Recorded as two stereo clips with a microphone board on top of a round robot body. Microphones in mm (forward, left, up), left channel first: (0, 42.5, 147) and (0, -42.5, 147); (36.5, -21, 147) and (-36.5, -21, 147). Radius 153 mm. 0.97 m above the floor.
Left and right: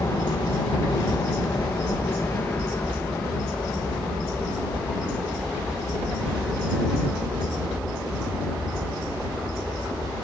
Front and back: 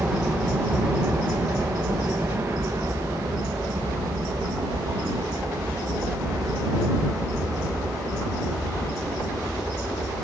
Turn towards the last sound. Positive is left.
turn(degrees=-175)